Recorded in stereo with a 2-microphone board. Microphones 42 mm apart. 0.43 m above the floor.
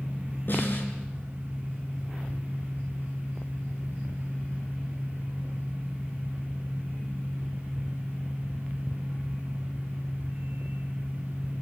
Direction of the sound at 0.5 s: 50° left (ahead or behind).